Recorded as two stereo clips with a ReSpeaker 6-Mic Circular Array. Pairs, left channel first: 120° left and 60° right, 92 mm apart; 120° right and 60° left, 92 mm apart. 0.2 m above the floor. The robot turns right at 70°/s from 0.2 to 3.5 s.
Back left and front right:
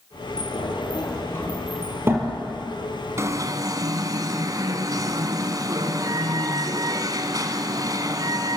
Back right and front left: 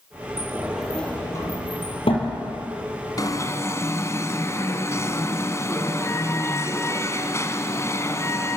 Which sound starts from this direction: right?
An alarm, at 3.2 s.